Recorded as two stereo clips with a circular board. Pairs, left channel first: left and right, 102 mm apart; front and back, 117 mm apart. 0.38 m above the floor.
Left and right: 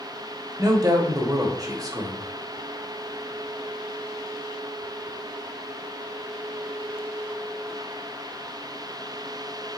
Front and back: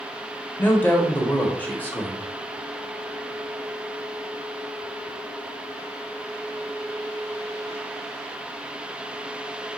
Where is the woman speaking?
70° right, 1.0 m.